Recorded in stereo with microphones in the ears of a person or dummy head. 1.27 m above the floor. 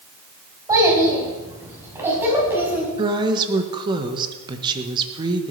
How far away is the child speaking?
About 5 m.